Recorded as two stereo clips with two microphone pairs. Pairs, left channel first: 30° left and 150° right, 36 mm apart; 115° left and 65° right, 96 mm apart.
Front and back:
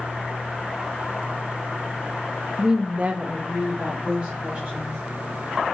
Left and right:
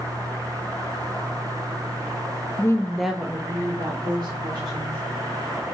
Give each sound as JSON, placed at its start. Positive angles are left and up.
{"t": 2.6, "sound": "a woman speaking", "azimuth_deg": 140, "distance_m": 1.0}